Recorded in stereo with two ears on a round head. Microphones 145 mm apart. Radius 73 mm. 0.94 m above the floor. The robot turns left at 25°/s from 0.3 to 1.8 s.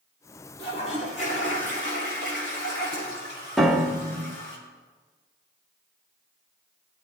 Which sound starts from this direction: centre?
A piano, at 3.6 s.